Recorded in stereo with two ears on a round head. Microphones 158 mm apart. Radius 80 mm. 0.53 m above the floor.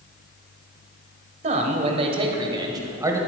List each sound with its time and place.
1.4 s a man speaking: 45° right (ahead or behind), 2.0 m; by 3.2 s 20° right (ahead or behind), 2 m